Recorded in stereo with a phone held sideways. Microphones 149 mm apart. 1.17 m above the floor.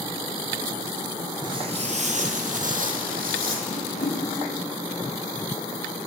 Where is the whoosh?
75° left (ahead or behind), 3.5 m.